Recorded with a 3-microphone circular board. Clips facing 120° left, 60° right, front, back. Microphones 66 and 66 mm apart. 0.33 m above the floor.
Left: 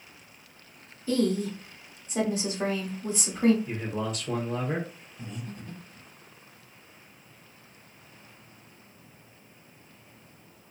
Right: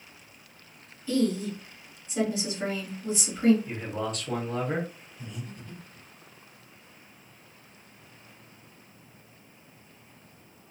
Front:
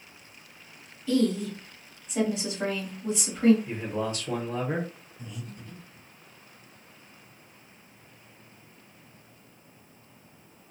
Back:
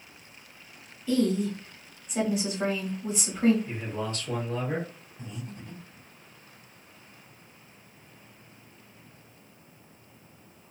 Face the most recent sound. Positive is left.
turn(degrees=145)